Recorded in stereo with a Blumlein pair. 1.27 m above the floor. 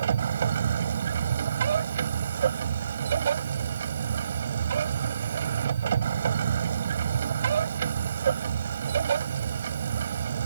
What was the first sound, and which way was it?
A machine running, 70° right.